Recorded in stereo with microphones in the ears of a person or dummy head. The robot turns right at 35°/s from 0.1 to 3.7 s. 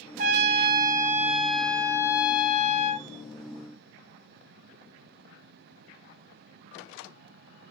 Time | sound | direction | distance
0.2 | a trumpet | 45° right | 0.6 m